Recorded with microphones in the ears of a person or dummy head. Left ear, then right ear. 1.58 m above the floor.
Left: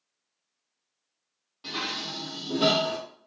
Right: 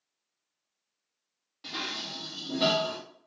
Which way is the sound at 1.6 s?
15° right (ahead or behind).